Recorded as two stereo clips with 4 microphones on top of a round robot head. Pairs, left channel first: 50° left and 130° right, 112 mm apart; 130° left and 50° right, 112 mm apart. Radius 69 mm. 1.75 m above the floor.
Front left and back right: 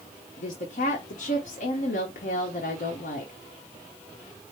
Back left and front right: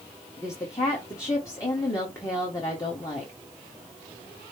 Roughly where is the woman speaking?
Ahead left.